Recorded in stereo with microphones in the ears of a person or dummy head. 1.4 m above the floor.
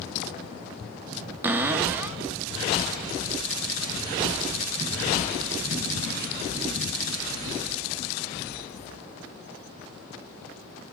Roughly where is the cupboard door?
Centre.